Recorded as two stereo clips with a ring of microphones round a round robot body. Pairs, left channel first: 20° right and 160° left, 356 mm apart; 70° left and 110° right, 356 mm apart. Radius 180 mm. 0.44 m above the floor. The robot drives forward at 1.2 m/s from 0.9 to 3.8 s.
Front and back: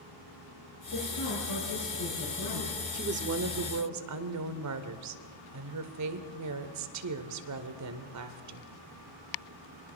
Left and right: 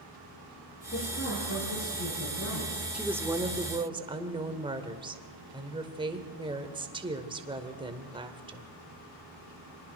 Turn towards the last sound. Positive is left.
turn(degrees=175)